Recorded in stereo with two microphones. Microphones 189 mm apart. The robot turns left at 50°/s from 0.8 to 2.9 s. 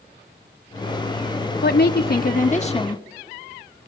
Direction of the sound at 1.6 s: 95° left.